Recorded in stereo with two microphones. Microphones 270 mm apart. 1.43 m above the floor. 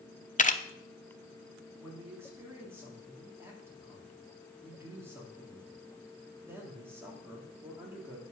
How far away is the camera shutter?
About 0.7 m.